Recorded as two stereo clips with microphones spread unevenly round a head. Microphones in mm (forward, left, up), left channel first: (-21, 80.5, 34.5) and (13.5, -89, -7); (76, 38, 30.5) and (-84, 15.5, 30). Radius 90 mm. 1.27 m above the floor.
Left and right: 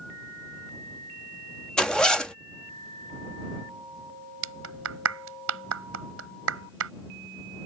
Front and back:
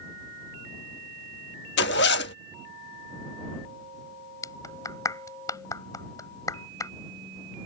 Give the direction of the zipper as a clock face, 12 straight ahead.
11 o'clock.